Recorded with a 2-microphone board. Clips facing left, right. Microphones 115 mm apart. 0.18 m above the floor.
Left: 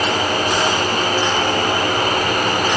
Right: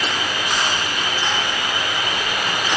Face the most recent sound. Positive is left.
turn(degrees=45)  # may be behind; listen again after turning